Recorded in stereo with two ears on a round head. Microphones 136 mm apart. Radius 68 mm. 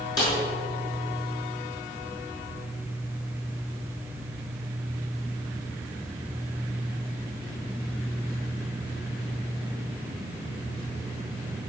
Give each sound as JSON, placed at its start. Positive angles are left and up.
{"t": 0.2, "sound": "a snare drum", "side_deg": 25, "distance_m": 6.0}